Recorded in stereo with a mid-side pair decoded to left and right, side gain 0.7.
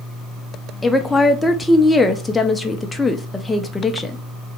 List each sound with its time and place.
0.8 s a woman speaking: 10° left, 0.5 m